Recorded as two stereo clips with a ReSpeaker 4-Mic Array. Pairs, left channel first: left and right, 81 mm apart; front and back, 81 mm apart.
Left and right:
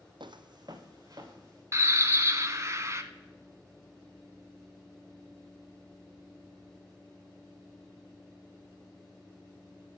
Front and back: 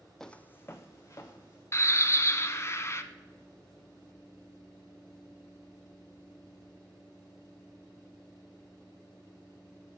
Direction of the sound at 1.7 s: 45° right.